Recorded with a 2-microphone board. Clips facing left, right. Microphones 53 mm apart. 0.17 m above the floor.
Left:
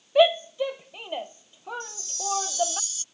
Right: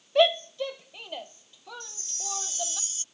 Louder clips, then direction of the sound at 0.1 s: Left 3 dB; 10° left (ahead or behind).